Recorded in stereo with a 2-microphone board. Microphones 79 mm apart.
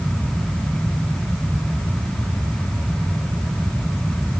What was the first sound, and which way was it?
Only background noise.